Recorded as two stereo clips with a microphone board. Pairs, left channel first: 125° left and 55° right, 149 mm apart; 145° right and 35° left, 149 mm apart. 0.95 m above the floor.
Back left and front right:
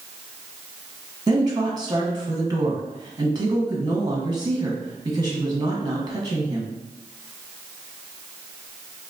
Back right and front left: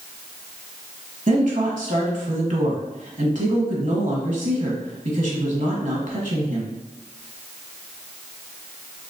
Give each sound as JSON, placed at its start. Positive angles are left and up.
{"t": 1.3, "sound": "a woman speaking", "azimuth_deg": 5, "distance_m": 1.2}